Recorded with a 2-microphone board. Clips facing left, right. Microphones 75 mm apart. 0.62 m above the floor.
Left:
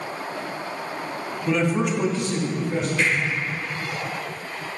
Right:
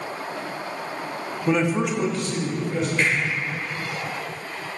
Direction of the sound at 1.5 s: 25° right (ahead or behind).